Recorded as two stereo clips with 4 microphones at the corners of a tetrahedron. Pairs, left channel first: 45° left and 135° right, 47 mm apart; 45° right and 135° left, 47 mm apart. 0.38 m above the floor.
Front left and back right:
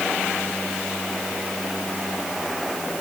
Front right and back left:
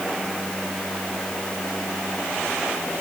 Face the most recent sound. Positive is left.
No sound to turn to.